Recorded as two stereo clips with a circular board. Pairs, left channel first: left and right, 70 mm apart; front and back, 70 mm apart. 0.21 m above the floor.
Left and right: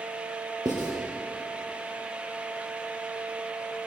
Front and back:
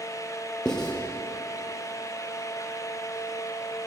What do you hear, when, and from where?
0.7 s writing: 80° right, 3 m